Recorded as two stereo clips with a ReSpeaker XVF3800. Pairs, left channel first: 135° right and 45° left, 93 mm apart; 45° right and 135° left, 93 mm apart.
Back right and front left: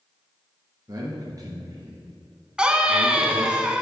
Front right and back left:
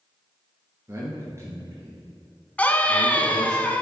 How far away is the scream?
About 1.0 m.